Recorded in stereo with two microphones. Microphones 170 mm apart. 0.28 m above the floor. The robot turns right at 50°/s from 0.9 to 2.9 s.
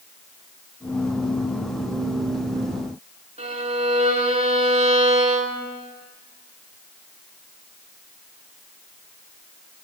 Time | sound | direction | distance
3.4 | a violin | 40° right (ahead or behind) | 0.7 m